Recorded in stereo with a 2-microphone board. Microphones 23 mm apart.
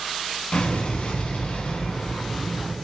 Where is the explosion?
60° left (ahead or behind), 0.6 m.